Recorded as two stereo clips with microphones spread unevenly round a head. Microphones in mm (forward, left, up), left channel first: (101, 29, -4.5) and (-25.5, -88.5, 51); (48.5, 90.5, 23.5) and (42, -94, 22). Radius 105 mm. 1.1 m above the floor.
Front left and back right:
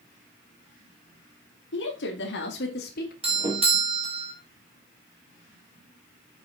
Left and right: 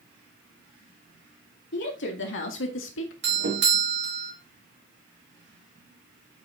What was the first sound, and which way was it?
A woman speaking, 65° left.